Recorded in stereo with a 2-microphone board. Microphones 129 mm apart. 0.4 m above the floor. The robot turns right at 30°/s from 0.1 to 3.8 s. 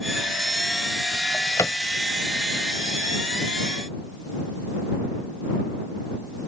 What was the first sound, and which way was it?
A drawer, 10° left (ahead or behind).